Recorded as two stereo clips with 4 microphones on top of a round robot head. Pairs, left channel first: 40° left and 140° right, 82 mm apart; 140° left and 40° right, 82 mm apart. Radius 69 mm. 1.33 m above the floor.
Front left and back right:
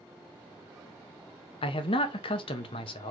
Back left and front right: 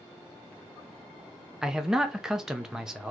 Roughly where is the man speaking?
Ahead left.